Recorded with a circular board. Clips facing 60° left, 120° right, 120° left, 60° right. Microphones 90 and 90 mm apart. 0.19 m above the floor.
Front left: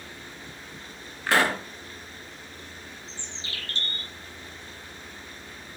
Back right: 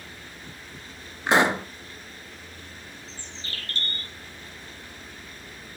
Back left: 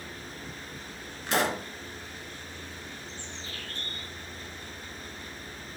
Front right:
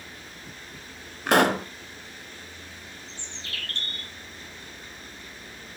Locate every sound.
1.3 s a pop: 50° right, 1.0 m
3.1 s a bird: 75° right, 1.9 m